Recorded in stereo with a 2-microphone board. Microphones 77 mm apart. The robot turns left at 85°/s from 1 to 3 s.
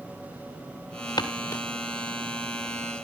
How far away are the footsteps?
About 2.5 m.